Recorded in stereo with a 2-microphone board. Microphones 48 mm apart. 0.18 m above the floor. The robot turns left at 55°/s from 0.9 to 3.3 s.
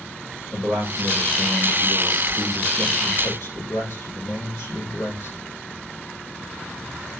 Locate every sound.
0.5 s a man speaking: 110° right, 5 m; by 5.4 s 120° left, 5 m